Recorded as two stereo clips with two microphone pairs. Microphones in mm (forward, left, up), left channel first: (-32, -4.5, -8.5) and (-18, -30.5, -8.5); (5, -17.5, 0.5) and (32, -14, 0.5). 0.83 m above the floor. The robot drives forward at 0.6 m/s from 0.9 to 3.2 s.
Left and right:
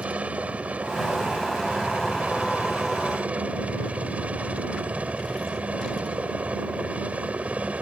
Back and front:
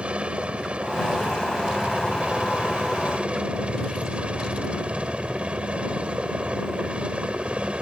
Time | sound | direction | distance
0.0 | a helicopter | 35° right | ?